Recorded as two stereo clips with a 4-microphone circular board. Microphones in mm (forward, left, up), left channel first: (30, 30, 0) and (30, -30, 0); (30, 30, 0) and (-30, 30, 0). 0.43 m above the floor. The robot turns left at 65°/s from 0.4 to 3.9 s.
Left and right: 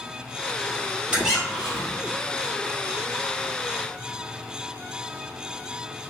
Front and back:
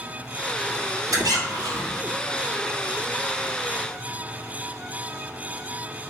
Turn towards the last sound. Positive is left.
turn(degrees=15)